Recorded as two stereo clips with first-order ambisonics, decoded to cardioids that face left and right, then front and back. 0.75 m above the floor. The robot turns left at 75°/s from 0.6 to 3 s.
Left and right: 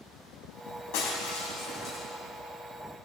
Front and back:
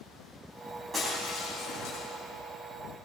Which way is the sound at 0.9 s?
105° left.